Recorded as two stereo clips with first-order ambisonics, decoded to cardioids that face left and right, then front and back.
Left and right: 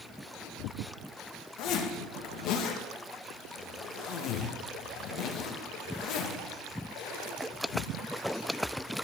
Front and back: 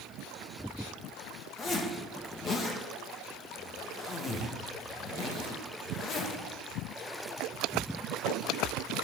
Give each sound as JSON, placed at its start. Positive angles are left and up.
{"t": 1.6, "sound": "a zipper", "azimuth_deg": 65, "distance_m": 1.5}